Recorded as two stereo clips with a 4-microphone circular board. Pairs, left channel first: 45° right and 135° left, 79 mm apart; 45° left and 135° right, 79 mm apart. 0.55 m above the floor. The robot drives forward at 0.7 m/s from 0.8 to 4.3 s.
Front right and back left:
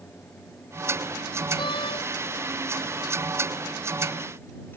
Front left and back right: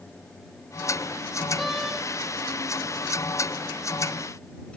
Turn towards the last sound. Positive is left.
turn(degrees=-55)